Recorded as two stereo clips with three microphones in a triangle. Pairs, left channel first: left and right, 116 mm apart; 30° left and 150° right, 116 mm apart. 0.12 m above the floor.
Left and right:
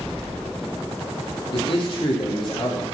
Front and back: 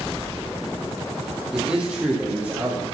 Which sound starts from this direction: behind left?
A man speaking, at 1.5 s.